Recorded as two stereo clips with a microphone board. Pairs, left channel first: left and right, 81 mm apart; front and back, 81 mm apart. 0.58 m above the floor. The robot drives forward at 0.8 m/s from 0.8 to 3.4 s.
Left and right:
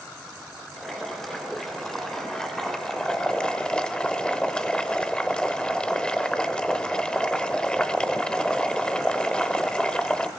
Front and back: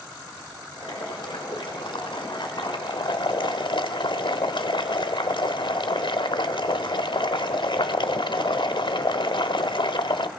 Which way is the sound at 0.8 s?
5° left.